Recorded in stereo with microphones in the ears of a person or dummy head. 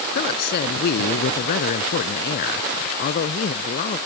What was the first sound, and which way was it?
A woman speaking, 50° left (ahead or behind).